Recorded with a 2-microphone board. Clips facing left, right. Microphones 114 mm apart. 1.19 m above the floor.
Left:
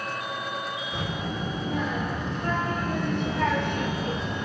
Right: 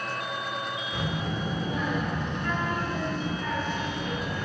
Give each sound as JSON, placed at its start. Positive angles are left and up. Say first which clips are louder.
{"t": 0.9, "sound": "a child speaking", "louder": "right 1 dB", "side_deg": 25, "distance_m": 2.5}